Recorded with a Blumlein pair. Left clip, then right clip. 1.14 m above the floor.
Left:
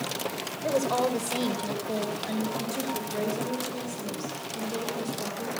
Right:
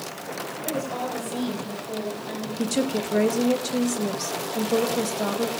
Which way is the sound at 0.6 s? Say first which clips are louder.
Left 5 dB; 20° left.